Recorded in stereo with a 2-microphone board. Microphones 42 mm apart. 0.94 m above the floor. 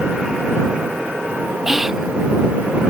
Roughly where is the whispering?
Centre.